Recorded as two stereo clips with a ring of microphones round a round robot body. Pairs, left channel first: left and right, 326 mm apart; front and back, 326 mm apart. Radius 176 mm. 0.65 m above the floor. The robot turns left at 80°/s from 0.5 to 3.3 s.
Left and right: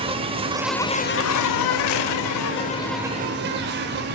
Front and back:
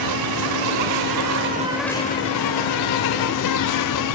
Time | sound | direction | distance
0.0 | an insect | 165° right | 0.7 m